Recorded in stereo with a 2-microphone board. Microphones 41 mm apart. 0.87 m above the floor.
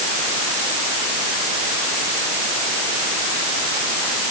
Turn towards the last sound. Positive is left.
No sound to turn to.